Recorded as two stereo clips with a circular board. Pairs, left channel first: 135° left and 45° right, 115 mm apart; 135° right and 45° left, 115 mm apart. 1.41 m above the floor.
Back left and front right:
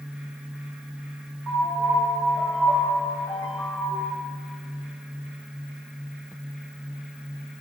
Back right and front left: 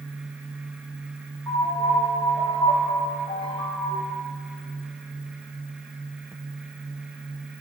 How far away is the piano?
About 1.3 m.